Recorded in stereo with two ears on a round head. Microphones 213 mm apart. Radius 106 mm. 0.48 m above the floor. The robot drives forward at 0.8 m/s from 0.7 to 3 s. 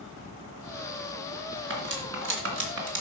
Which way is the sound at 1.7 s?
50° right (ahead or behind).